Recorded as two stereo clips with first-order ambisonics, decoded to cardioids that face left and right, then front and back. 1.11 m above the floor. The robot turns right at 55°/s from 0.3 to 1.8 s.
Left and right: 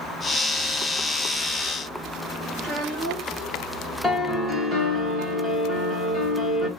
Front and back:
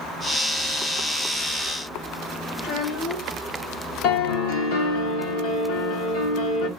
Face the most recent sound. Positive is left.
turn(degrees=-10)